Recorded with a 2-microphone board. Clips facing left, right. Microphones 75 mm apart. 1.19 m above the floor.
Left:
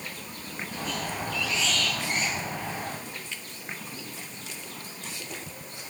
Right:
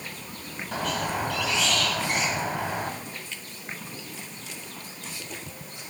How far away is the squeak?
About 3 m.